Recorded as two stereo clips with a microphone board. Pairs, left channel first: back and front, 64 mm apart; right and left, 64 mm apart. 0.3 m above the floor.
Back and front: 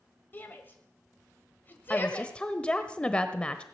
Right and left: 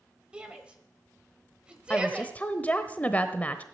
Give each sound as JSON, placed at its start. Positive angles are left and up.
{"t": 0.3, "sound": "a shout", "azimuth_deg": 150, "distance_m": 1.3}
{"t": 1.9, "sound": "a woman speaking", "azimuth_deg": -125, "distance_m": 0.9}